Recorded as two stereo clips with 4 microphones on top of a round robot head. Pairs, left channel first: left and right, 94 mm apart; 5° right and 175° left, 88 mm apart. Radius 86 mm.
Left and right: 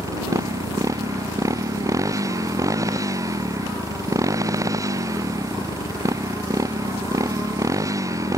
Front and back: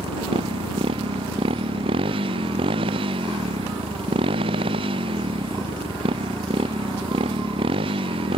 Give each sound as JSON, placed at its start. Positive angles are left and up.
{"t": 0.0, "sound": "a motorcycle", "azimuth_deg": -145}